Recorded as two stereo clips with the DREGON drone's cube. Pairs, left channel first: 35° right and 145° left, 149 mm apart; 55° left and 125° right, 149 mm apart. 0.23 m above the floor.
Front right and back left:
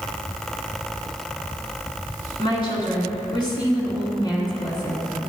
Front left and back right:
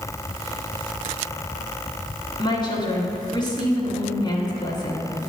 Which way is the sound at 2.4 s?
10° left.